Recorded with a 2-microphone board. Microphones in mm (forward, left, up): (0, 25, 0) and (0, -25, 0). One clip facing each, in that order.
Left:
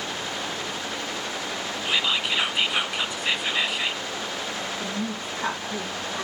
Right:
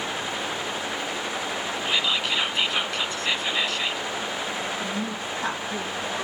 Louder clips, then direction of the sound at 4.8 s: Right 1 dB; 10° left (ahead or behind).